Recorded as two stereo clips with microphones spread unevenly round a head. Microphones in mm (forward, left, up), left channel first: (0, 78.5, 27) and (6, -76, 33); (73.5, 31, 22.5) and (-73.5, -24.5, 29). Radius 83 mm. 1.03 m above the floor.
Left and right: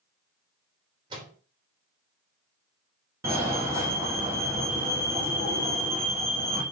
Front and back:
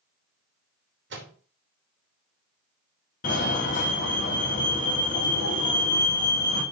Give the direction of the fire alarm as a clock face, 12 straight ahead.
1 o'clock.